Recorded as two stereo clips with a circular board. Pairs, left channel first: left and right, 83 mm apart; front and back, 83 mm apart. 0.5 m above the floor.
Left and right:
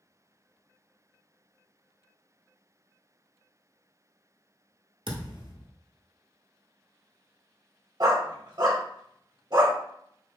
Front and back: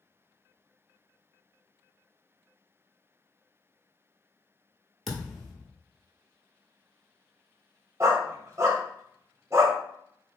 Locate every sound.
5.1 s a thud: 90° right, 1.2 m
8.0 s a dog barking: 125° right, 0.8 m